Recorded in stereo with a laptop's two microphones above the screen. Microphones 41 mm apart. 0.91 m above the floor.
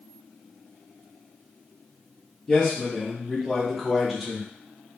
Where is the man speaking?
10° left (ahead or behind), 1.3 m; by 4.5 s centre (ahead or behind), 0.7 m.